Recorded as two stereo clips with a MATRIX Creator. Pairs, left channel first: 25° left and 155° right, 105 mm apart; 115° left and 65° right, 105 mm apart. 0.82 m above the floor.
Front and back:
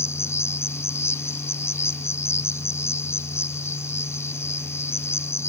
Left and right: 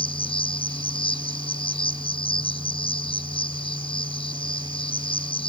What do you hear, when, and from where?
0.0 s an insect: 85° left